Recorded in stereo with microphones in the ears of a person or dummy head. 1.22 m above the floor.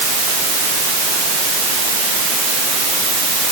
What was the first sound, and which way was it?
Only background noise.